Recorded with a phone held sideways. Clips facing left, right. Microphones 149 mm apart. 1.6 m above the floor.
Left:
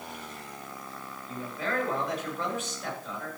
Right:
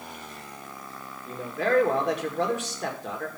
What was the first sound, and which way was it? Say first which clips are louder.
A man speaking: right 8 dB; 80° right.